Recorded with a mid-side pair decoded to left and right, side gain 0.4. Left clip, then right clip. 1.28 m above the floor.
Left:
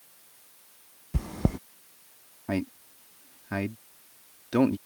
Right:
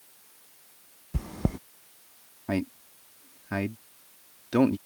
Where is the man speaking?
5° right.